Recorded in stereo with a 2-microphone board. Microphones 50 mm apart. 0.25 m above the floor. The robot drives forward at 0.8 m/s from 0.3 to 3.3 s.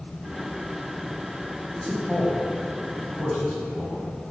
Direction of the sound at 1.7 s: 10° left (ahead or behind).